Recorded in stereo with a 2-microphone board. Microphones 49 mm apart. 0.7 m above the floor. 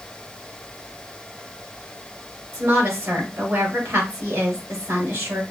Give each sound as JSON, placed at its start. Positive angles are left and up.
{"t": 2.5, "sound": "a woman speaking", "side_deg": -70, "distance_m": 4.0}